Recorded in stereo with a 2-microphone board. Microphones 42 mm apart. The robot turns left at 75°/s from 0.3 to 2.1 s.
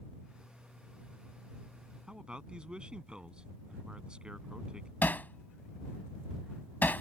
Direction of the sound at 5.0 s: 50° left (ahead or behind).